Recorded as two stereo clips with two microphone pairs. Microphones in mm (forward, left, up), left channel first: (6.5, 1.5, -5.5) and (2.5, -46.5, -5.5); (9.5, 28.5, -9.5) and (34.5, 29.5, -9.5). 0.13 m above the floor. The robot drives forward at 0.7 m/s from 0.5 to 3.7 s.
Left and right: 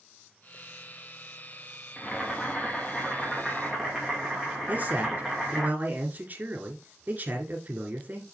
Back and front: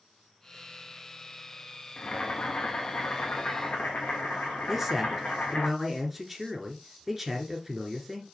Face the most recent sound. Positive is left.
turn(degrees=-75)